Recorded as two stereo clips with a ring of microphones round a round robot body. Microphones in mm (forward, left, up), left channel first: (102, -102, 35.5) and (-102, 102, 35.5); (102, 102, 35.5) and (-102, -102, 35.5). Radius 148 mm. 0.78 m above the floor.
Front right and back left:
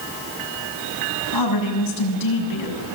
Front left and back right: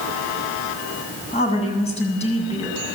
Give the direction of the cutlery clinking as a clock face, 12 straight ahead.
No cutlery clinking in this recording.